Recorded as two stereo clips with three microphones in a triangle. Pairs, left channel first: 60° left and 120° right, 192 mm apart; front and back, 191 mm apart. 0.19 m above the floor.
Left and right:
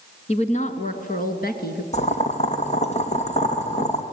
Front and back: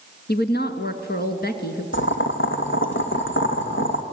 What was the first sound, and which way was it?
A woman speaking, 10° left.